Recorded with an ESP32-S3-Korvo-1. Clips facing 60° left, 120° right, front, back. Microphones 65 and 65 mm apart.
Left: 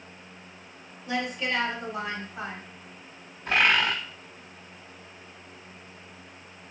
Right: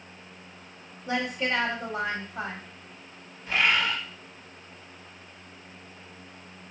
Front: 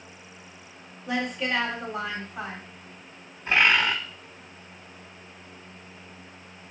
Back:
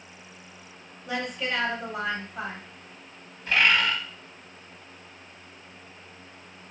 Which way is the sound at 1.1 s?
90° right.